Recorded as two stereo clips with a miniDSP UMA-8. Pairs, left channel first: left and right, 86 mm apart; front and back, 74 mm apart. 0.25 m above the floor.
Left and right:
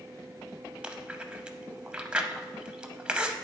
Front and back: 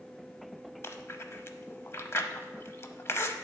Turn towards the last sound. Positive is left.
turn(degrees=-20)